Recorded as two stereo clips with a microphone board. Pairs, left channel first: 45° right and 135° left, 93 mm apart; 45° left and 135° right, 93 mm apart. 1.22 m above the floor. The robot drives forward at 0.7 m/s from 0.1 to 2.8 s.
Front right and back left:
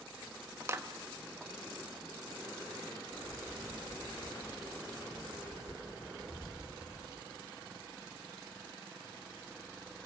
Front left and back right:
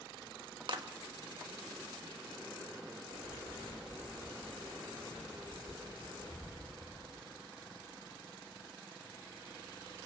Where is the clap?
165° right, 1.5 m.